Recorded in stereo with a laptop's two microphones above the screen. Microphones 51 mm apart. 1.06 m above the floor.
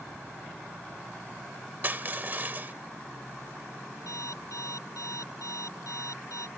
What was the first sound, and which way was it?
Crushing, 40° right (ahead or behind).